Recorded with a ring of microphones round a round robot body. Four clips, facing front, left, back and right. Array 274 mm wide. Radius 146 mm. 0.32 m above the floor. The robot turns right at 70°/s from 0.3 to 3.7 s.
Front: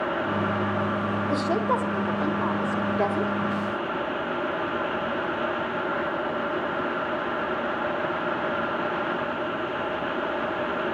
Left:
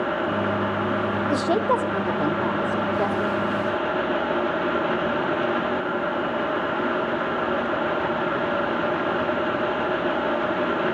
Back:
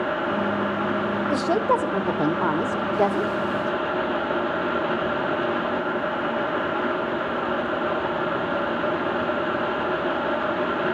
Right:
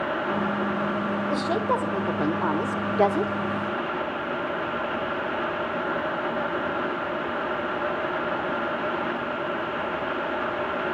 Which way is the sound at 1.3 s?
115° left.